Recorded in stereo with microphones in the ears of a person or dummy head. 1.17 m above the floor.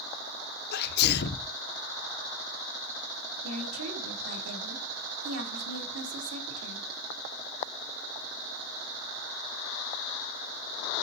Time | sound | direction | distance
0.7 | a sneeze | 50° left (ahead or behind) | 0.5 m
3.4 | a woman speaking | 80° right | 2.5 m